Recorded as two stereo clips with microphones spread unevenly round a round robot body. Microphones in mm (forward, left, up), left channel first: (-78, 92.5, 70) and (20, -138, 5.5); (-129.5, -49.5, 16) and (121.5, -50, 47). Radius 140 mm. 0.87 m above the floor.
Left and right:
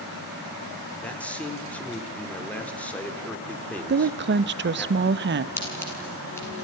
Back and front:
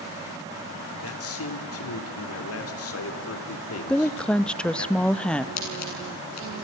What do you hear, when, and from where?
1.0 s a man speaking: 160° right, 3.5 m
3.9 s a woman speaking: 95° right, 0.8 m
5.6 s scissors: 165° right, 8 m